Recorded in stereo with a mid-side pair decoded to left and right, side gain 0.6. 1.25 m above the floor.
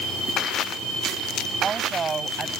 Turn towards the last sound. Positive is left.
turn(degrees=-30)